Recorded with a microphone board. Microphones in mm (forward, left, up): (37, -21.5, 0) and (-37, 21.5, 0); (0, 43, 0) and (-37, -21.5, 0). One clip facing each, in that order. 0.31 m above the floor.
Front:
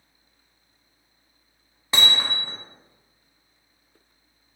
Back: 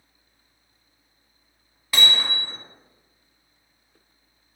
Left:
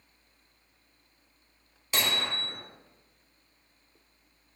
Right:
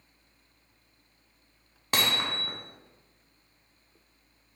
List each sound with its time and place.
1.9 s hammering: 90° right, 0.8 m